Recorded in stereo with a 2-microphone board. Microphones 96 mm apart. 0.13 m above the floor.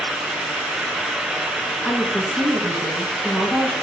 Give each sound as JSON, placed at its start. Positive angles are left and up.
{"t": 1.8, "sound": "a woman speaking", "side_deg": 0, "distance_m": 1.4}